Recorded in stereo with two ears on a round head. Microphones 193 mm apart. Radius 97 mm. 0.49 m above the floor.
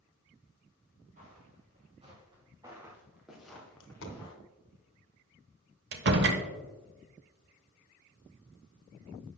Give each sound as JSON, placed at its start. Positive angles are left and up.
{"t": 1.2, "sound": "footsteps", "side_deg": -40, "distance_m": 4.0}
{"t": 3.8, "sound": "a dropped coin", "side_deg": 65, "distance_m": 1.4}
{"t": 5.9, "sound": "a door slam", "side_deg": -50, "distance_m": 1.1}